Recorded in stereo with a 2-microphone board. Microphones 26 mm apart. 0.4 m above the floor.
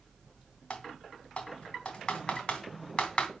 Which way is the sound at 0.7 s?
40° left (ahead or behind).